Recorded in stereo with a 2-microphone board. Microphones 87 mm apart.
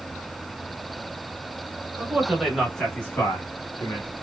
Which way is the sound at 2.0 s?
20° right (ahead or behind).